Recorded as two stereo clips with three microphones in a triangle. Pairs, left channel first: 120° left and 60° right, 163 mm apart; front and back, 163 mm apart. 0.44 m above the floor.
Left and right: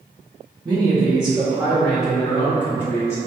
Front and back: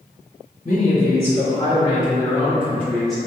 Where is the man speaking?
20° left, 1.8 m; by 3.2 s 95° left, 1.2 m.